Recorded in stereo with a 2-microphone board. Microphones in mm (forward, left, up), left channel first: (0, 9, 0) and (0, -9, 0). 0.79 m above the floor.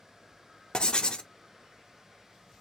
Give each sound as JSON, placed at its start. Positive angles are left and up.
{"t": 0.7, "sound": "writing", "side_deg": 45, "distance_m": 0.5}